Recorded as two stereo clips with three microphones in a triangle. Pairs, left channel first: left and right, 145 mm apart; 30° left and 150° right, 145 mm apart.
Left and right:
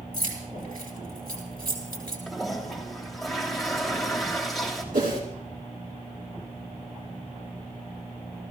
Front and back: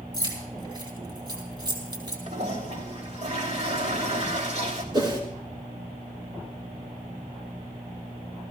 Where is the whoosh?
95° right, 4 m.